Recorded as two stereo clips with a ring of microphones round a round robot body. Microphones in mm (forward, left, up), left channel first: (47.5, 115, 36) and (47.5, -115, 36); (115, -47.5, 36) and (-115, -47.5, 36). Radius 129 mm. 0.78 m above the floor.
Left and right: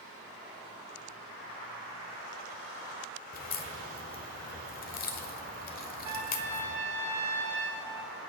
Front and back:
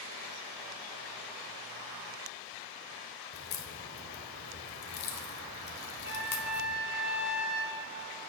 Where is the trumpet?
140° right, 5 m.